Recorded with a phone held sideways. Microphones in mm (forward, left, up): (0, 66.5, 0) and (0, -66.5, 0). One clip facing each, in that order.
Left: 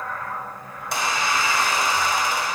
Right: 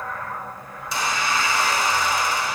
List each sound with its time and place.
0.8 s a squeak: 70° left (ahead or behind), 2 m